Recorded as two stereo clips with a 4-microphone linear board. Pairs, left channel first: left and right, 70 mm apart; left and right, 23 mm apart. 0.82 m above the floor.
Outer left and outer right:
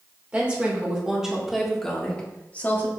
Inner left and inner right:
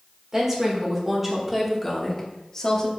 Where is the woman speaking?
20° right (ahead or behind), 2.5 m; by 2.9 s 30° left (ahead or behind), 1.6 m.